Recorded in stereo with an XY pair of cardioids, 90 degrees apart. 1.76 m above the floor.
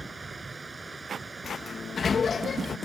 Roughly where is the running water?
Ahead right.